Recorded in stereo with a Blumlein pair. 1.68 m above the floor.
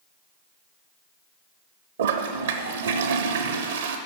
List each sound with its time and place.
2.0 s a toilet flushing: 60° right, 0.8 m